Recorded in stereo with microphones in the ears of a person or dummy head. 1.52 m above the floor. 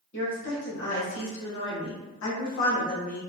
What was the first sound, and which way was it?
A woman speaking, 70° left (ahead or behind).